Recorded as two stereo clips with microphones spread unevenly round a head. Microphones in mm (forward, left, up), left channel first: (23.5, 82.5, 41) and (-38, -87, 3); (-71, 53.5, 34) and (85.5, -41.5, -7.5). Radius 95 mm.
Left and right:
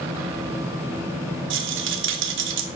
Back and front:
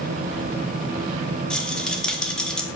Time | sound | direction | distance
1.5 | a rattle | 125° right | 2 m